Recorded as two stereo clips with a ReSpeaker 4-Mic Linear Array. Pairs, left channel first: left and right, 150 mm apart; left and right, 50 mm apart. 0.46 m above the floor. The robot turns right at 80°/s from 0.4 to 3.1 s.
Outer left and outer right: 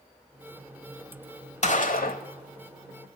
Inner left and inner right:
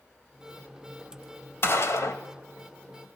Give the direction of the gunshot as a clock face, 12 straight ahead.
10 o'clock.